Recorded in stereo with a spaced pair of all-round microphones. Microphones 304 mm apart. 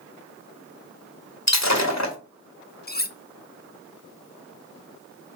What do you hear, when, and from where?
1.5 s breaking glass: 60° left (ahead or behind), 1.6 m
2.9 s cutlery clinking: 30° left (ahead or behind), 0.7 m